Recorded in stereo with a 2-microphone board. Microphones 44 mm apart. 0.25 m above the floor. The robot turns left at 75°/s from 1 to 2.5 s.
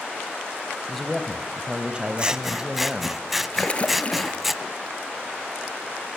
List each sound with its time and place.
0.9 s a man speaking: 5° left (ahead or behind), 1.1 m; by 3.2 s 25° right (ahead or behind), 1.1 m
2.2 s scissors: 25° right (ahead or behind), 0.5 m; by 4.5 s 5° right (ahead or behind), 0.5 m
3.5 s a splash: 30° left (ahead or behind), 1.3 m